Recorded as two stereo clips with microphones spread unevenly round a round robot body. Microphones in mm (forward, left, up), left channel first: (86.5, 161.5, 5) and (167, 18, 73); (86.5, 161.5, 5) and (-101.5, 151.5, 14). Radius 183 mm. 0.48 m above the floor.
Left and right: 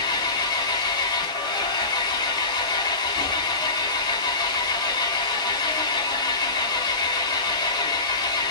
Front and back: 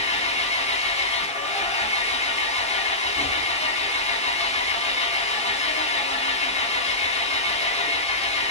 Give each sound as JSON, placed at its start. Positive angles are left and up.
{"t": 0.0, "sound": "an engine running", "azimuth_deg": 60, "distance_m": 2.5}